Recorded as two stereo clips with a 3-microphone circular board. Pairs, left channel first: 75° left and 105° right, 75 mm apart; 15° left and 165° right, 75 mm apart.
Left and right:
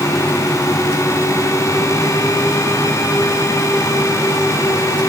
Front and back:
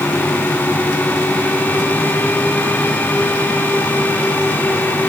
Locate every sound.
Only background noise.